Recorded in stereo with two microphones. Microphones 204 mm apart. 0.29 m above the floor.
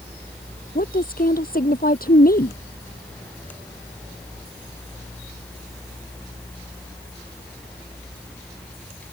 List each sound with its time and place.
0.8 s a woman speaking: 45° left (ahead or behind)